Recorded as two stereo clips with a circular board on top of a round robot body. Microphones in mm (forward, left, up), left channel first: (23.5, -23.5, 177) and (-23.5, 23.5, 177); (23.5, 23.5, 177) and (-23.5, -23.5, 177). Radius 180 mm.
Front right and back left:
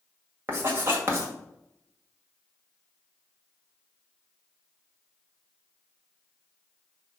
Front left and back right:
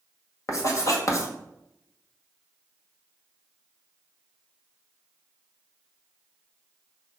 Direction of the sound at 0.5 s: 80° left.